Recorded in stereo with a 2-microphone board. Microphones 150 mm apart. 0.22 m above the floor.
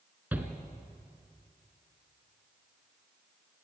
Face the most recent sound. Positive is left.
turn(degrees=-10)  # may be behind; listen again after turning